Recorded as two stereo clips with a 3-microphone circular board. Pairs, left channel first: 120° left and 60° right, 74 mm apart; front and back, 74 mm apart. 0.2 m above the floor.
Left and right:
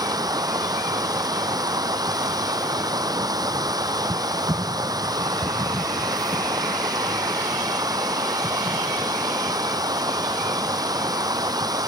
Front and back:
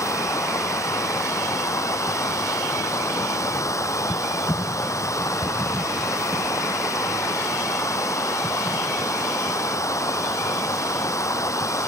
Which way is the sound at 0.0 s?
40° right.